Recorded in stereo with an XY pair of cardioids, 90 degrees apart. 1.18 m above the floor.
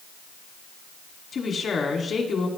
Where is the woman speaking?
50° left, 2 m.